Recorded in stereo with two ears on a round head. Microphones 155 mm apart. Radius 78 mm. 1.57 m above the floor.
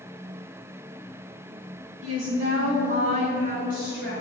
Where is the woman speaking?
45° right (ahead or behind), 1.9 m; by 4.1 s 65° right (ahead or behind), 5 m.